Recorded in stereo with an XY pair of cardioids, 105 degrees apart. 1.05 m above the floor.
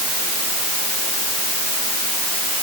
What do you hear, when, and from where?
Only background noise.